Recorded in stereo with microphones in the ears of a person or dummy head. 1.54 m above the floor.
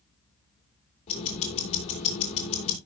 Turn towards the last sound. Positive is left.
turn(degrees=35)  # may be behind; listen again after turning